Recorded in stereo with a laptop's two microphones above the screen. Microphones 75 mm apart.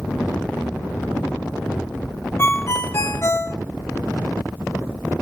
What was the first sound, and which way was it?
A ringtone, 35° left (ahead or behind).